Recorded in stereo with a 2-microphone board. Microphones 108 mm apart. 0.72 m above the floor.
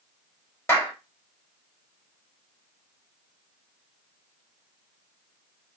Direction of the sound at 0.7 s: 25° left (ahead or behind).